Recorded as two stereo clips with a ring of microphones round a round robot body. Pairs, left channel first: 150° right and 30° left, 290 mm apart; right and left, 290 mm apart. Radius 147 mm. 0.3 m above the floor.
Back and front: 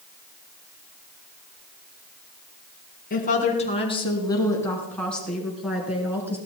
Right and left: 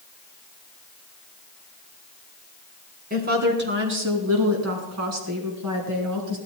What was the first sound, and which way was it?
A woman speaking, 150° left.